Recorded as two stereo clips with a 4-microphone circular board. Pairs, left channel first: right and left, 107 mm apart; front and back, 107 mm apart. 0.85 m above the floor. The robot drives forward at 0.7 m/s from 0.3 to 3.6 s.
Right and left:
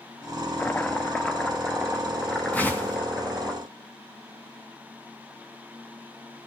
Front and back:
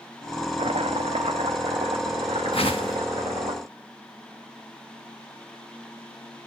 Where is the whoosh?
15° right, 2 m; by 3.0 s 20° right, 1.8 m.